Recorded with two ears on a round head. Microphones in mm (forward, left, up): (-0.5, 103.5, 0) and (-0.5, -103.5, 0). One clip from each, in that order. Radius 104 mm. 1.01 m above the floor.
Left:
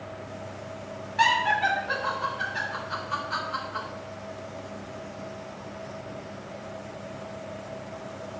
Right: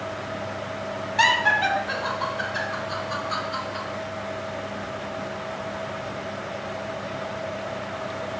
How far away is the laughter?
About 0.6 m.